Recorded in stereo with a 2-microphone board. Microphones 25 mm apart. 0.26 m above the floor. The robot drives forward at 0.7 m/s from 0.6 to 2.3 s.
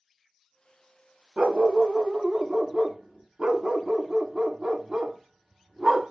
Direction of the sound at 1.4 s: 50° right (ahead or behind).